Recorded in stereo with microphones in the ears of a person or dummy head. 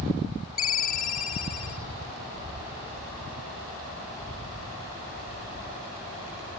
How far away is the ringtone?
About 1.7 m.